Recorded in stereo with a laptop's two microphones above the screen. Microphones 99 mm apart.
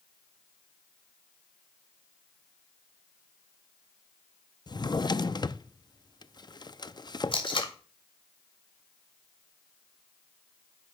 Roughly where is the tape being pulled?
Left.